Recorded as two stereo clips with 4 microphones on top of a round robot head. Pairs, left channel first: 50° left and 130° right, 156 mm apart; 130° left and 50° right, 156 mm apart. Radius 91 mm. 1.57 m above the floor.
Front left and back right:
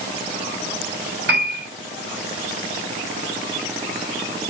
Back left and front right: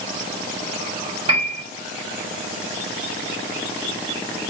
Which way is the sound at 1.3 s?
105° right.